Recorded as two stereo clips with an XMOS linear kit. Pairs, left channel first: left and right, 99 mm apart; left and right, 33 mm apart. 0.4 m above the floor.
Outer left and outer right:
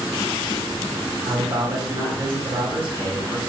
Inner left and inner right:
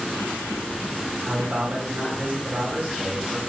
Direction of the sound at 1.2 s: 65° right (ahead or behind).